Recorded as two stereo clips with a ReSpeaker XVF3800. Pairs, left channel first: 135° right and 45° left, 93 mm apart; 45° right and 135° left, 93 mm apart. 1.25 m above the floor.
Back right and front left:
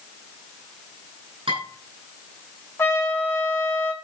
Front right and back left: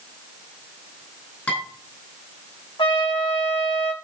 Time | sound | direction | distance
1.5 | dishes clattering | 25° left | 9.5 m
2.8 | a trumpet | 70° right | 3 m